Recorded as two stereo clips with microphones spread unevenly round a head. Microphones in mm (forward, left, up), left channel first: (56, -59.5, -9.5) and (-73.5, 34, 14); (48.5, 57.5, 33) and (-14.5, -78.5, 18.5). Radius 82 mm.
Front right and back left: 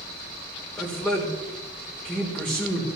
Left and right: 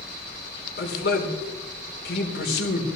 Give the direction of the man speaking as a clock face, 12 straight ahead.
10 o'clock.